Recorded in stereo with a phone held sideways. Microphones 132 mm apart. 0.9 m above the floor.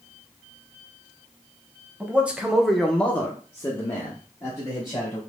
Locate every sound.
2.0 s a man speaking: 10° right (ahead or behind), 0.9 m; by 5.2 s 20° left (ahead or behind), 1.8 m